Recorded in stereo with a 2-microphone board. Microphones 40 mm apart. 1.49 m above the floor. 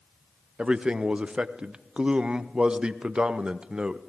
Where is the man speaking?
25° right (ahead or behind), 0.5 m.